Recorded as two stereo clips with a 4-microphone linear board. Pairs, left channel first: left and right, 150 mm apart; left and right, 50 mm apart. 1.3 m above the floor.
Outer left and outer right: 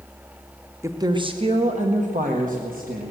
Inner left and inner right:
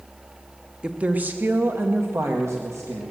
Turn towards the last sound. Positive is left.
turn(degrees=-75)  # may be behind; listen again after turning